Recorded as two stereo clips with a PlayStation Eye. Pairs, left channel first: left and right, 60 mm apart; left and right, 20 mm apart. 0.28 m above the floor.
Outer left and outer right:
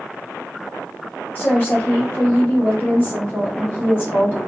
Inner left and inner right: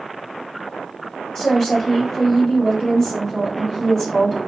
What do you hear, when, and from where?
1.4 s a woman speaking: 35° left (ahead or behind), 1.7 m